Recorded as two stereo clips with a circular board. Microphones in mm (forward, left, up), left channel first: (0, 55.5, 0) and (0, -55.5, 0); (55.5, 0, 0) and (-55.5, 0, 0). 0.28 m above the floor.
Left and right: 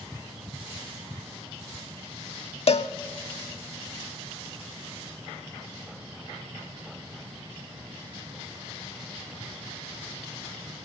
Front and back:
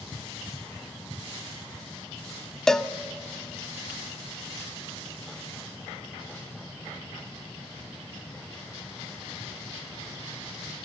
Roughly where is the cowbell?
Left.